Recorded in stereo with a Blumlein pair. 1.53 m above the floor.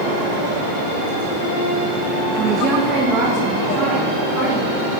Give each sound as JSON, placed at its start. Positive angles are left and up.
{"t": 2.4, "sound": "a woman speaking", "azimuth_deg": -30, "distance_m": 0.6}